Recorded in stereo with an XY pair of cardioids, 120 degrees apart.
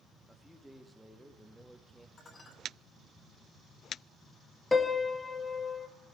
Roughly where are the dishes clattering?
Ahead left.